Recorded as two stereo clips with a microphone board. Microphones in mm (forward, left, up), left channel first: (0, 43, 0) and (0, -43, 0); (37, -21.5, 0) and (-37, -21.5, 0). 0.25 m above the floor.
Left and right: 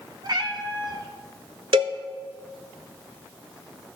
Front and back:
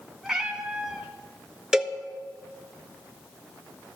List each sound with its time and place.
0.2 s a cat meowing: 95° right, 1.2 m
1.7 s a cowbell: 100° right, 0.9 m